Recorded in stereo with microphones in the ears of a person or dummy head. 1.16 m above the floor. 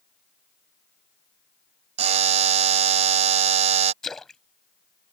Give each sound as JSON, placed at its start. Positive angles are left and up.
{"t": 2.0, "sound": "a buzzer", "side_deg": -35}
{"t": 4.0, "sound": "a splash", "side_deg": 5}